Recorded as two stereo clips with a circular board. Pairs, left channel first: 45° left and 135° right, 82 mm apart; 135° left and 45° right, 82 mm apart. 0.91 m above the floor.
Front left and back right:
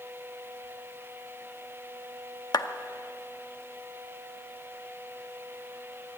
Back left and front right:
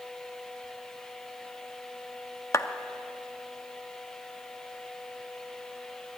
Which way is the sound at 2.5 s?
85° left.